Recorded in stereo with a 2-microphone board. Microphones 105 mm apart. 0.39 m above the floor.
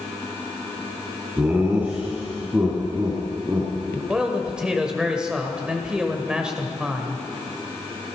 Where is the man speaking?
10° right (ahead or behind), 1.6 m.